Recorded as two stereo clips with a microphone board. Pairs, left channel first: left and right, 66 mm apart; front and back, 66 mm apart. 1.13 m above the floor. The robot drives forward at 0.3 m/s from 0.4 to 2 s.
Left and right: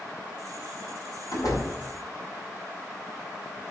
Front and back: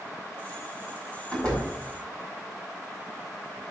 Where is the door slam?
75° left, 4.5 m.